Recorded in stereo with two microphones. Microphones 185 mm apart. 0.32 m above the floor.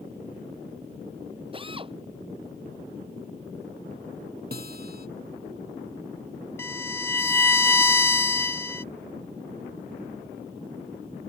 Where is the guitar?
55° right (ahead or behind).